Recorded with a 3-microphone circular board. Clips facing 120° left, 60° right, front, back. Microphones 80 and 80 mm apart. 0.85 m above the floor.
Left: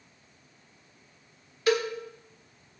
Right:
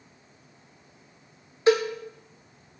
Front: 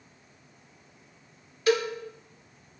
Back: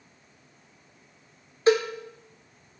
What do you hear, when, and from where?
1.7 s a cowbell: 120° right, 1.9 m